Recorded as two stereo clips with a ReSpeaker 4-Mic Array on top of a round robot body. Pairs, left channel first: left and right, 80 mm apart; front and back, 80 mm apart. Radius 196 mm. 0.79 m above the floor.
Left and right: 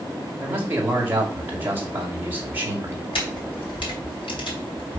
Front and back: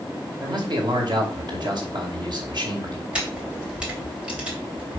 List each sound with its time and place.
0.4 s a man speaking: 155° right, 2.5 m
3.1 s a camera shutter: 100° left, 3 m